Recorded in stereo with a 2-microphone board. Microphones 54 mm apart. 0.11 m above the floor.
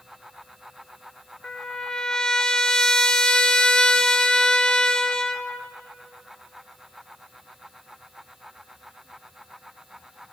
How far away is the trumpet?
About 0.9 m.